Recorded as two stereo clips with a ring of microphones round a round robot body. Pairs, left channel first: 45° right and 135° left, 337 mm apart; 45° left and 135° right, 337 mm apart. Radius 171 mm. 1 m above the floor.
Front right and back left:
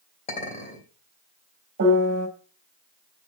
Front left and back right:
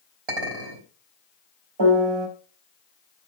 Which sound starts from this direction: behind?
A piano, at 1.8 s.